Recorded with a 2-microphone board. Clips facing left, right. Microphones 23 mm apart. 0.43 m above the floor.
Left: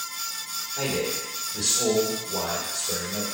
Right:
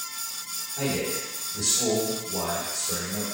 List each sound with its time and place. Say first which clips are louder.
0.8 s a man speaking: left 1 dB; 50° left (ahead or behind), 2 m